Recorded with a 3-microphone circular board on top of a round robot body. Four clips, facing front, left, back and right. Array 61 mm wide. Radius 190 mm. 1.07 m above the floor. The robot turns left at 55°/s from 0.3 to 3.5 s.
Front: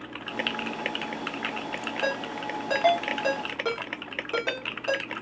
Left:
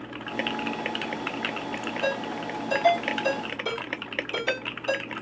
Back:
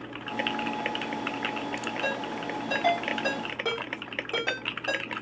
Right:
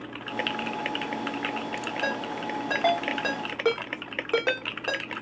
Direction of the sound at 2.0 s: 5° right.